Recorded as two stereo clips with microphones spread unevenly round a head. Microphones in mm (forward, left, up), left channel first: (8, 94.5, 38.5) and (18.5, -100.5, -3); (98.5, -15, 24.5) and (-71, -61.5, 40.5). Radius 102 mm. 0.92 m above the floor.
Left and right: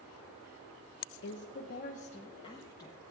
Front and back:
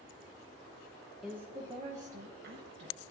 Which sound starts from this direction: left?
A woman speaking, at 1.2 s.